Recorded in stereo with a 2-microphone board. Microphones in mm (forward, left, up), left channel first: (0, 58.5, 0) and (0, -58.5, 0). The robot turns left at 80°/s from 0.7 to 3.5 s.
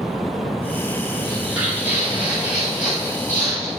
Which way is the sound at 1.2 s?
5° left (ahead or behind).